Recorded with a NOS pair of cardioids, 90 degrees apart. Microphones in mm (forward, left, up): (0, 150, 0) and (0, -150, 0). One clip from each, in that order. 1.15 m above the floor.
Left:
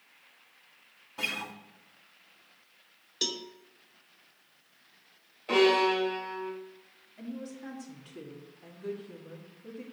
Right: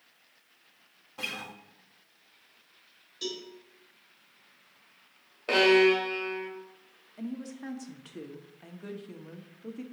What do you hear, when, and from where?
1.2 s a guitar: 10° left, 1.4 m
3.2 s a cowbell: 60° left, 1.0 m
5.5 s a violin: 65° right, 2.5 m
7.2 s a woman speaking: 40° right, 1.6 m